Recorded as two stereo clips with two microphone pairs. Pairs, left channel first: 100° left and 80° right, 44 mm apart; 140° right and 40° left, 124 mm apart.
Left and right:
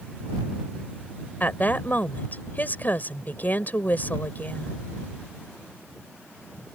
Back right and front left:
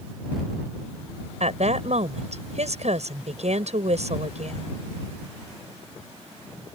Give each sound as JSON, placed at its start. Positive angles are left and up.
{"t": 1.4, "sound": "a woman speaking", "azimuth_deg": 55}